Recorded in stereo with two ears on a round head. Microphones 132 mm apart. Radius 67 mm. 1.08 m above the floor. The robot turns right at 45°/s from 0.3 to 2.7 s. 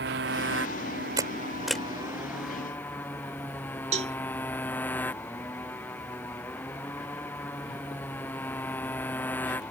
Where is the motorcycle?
95° right; by 9.7 s 10° left.